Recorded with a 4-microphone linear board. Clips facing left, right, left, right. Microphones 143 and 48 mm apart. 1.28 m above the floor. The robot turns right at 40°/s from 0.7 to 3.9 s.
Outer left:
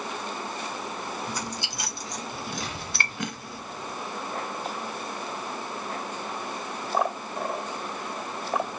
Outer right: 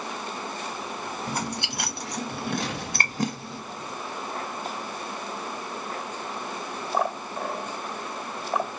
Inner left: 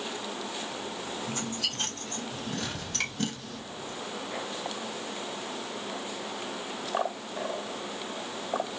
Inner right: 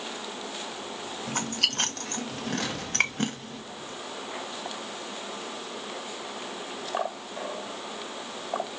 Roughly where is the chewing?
Right.